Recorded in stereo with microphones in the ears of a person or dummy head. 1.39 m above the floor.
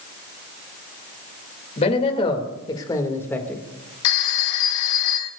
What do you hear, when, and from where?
1.8 s a man speaking: 30° left (ahead or behind), 2.5 m; by 3.6 s 5° left (ahead or behind), 1.8 m
4.0 s a phone ringing: 75° left (ahead or behind), 1.6 m